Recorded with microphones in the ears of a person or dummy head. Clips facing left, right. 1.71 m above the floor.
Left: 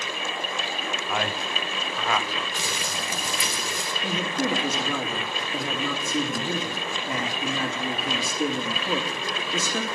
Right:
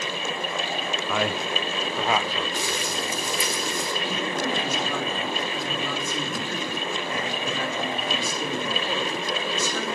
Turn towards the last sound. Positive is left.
turn(degrees=75)  # may be behind; listen again after turning